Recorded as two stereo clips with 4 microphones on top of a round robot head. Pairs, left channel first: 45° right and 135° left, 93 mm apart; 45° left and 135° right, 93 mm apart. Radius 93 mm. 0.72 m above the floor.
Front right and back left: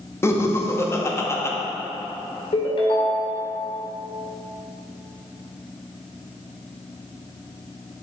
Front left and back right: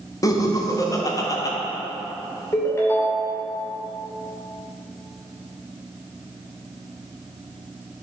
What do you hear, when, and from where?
0.2 s laughter: 10° left, 1.7 m
2.5 s a ringtone: 15° right, 1.9 m